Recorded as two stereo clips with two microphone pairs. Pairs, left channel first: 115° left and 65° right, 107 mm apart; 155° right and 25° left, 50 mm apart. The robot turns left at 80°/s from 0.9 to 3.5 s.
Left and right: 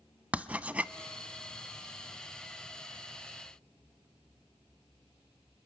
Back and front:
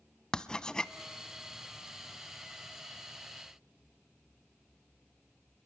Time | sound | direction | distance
0.3 | writing | 120° right | 0.5 m